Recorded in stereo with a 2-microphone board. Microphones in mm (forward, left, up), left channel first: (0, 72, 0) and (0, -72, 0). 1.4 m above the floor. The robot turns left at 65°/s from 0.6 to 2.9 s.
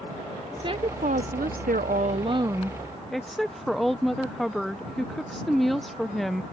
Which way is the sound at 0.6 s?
30° right.